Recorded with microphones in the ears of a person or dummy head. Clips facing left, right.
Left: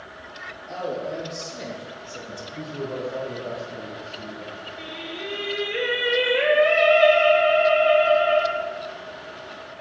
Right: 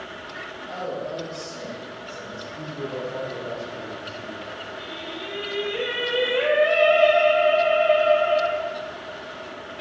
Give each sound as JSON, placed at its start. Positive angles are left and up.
{"t": 0.7, "sound": "a man speaking", "side_deg": 20, "distance_m": 2.0}
{"t": 2.5, "sound": "a man speaking", "side_deg": 40, "distance_m": 1.9}
{"t": 4.8, "sound": "singing", "side_deg": 30, "distance_m": 1.2}